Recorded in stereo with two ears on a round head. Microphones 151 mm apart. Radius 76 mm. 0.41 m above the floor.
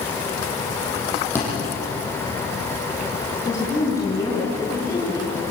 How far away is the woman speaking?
About 6.5 m.